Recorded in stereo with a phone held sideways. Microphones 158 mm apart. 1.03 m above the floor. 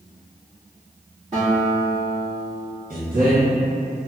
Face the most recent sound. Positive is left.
turn(degrees=-60)  # may be behind; listen again after turning